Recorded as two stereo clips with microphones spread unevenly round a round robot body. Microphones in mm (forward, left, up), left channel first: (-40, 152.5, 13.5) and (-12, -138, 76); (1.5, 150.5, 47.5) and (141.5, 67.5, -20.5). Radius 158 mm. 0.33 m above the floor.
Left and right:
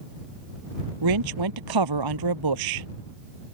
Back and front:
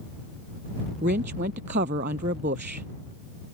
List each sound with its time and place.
1.0 s a woman speaking: 85° right